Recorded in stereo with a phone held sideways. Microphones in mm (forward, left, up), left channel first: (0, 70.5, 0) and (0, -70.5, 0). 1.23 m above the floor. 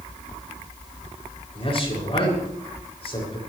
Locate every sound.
1.6 s a man speaking: 40° left (ahead or behind), 6.5 m